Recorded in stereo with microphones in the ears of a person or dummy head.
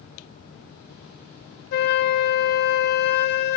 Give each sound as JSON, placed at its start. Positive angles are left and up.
{"t": 1.7, "sound": "a flute", "side_deg": 60, "distance_m": 0.6}